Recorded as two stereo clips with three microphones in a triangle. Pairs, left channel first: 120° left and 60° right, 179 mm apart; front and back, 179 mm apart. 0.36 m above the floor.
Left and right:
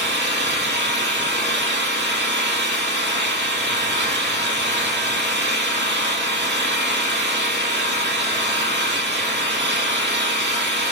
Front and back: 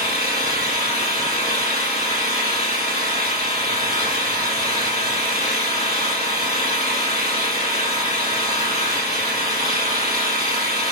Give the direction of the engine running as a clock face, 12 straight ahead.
2 o'clock.